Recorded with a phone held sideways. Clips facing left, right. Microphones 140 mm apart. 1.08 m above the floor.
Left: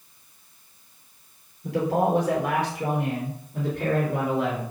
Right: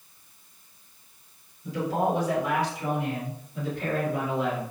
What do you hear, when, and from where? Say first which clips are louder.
1.6 s a man speaking: left 3 dB; 70° left (ahead or behind), 4 m; by 4.7 s 75° left (ahead or behind), 4.5 m